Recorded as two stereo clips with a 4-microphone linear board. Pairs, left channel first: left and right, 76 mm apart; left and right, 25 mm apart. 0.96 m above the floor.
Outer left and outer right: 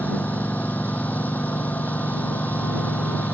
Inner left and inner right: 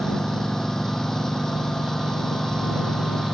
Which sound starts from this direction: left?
A lawn mower, at 0.0 s.